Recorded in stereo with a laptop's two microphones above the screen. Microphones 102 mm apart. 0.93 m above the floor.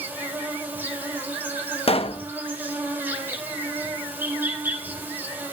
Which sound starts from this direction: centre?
An insect, at 0.0 s.